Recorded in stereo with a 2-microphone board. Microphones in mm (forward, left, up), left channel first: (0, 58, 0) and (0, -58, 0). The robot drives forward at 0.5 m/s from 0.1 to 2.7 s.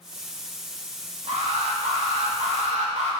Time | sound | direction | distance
1.3 | an alarm | 75° right (ahead or behind) | 3 m